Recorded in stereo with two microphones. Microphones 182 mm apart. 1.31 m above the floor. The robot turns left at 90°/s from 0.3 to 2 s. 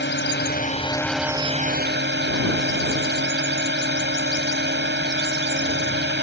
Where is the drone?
75° left; by 6.2 s 75° right.